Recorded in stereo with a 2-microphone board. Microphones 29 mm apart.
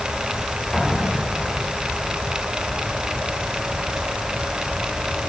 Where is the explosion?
5° left (ahead or behind), 10 m.